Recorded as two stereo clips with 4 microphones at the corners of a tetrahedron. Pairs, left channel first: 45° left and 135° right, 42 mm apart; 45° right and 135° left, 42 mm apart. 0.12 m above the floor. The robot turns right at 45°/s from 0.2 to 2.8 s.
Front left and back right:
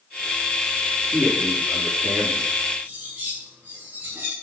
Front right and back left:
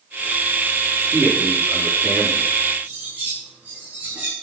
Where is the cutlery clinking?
165° right, 8.5 m.